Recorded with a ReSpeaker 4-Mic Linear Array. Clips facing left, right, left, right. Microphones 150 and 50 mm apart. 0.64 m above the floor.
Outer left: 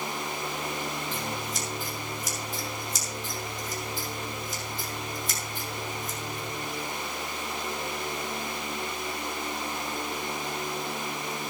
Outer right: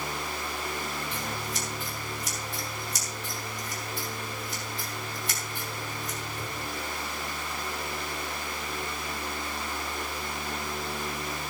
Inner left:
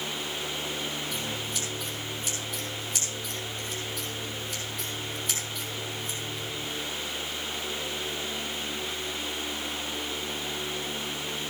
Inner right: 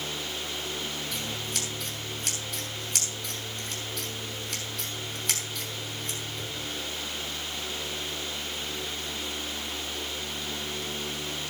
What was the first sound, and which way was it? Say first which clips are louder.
Scissors: outer left 1 dB, inner left 1 dB; 70° right (ahead or behind).